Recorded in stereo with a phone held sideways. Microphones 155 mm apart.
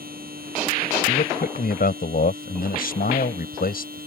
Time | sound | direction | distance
0.0 | a machine running | 70° right (ahead or behind) | ?
1.1 | a man speaking | 70° left (ahead or behind) | ?